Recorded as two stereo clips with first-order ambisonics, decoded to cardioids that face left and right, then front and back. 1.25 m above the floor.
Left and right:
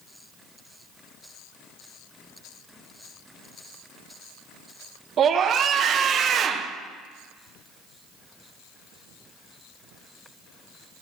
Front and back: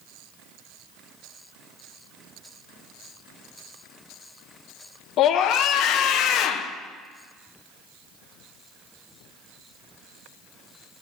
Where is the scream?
35° right, 0.6 m.